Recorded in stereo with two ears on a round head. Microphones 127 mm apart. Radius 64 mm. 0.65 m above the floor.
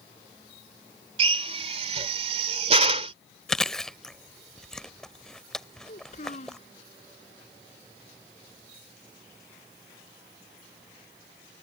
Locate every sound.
1.2 s a drill: 50° right (ahead or behind)
3.5 s chewing: 5° left (ahead or behind)
5.9 s a child speaking: 50° left (ahead or behind)